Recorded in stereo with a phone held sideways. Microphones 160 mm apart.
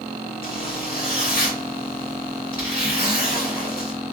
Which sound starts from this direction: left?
A zipper, at 0.4 s.